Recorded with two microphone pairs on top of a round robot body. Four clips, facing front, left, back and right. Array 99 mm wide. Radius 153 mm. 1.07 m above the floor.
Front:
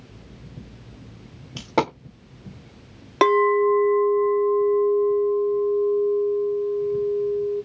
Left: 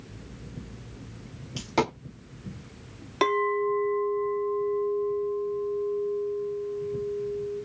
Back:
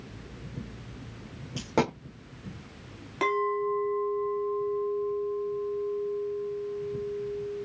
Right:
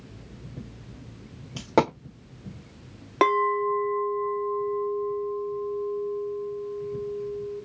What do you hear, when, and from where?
1.6 s a dropped coin: 75° right, 1.1 m
3.2 s a clink: 35° right, 0.8 m